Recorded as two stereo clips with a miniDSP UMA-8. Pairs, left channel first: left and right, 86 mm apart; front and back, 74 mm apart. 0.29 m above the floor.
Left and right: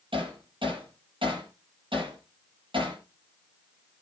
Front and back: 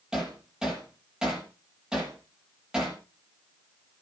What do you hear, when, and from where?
0.1 s hammering: 100° right, 8 m